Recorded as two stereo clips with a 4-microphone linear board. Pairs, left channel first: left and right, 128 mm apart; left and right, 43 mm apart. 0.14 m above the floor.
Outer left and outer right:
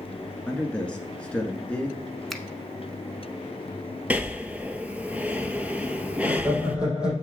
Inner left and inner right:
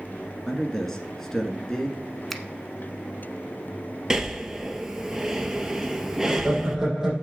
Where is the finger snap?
Centre (ahead or behind), 0.9 m.